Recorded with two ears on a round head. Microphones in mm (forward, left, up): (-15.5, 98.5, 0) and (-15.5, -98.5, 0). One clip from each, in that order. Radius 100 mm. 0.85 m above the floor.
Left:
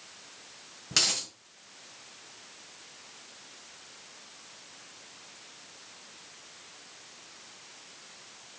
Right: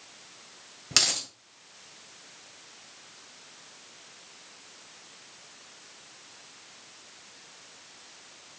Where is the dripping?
No dripping in this recording.